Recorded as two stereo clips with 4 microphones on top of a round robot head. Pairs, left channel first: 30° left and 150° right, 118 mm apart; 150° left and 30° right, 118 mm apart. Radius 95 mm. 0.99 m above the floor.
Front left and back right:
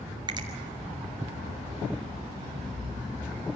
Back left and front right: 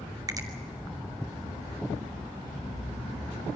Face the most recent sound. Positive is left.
turn(degrees=-95)